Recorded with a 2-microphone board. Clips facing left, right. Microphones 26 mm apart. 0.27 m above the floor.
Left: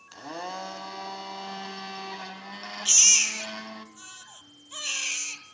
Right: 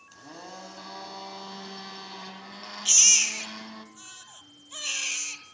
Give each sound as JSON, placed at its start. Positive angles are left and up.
{"t": 0.1, "sound": "a blender", "side_deg": 45, "distance_m": 1.5}
{"t": 2.9, "sound": "a baby crying", "side_deg": 5, "distance_m": 2.0}